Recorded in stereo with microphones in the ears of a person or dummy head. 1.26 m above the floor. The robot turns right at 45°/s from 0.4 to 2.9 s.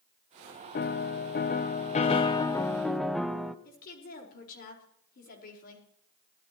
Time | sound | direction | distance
0.8 | a piano | 75° left | 0.7 m
3.6 | a woman speaking | 50° left (ahead or behind) | 4.5 m